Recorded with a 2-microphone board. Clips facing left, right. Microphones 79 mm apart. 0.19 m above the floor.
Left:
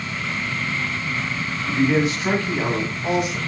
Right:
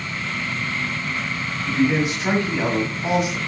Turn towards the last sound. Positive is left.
turn(degrees=-20)  # may be behind; listen again after turning